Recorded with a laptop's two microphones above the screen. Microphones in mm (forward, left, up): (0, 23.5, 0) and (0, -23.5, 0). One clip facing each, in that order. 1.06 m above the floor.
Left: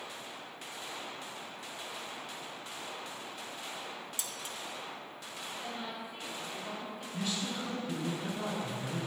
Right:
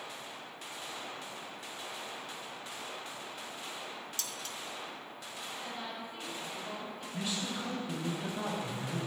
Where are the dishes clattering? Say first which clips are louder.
Even; 15° left (ahead or behind), 0.6 m.